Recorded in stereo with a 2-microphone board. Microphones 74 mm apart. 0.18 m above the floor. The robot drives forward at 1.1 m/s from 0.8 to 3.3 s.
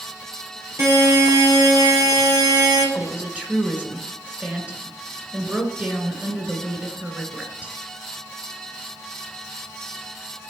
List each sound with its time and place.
0.8 s a buzzer: 40° right (ahead or behind), 4 m; by 2.9 s 60° right (ahead or behind), 3 m
3.0 s a woman speaking: 20° right (ahead or behind), 2 m